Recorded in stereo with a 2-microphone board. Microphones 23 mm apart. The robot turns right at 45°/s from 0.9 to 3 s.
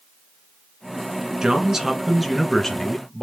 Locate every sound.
1.4 s a man speaking: 40° right, 1.5 m; by 3.2 s 35° left, 1.5 m